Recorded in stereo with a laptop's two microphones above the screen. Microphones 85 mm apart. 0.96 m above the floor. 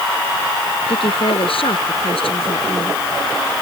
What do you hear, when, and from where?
0.9 s a woman speaking: 80° left